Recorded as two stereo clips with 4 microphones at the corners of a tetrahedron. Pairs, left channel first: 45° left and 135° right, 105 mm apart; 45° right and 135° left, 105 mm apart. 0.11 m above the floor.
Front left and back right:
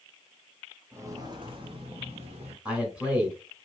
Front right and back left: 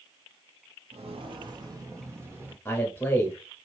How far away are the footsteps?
About 0.9 m.